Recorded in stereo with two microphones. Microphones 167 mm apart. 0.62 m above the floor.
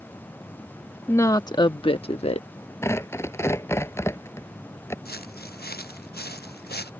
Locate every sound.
1.1 s a woman speaking: 15° left (ahead or behind); by 2.5 s 40° left (ahead or behind)
2.8 s tearing paper: 15° left (ahead or behind)
5.0 s footsteps: 70° left (ahead or behind); by 6.9 s 75° left (ahead or behind)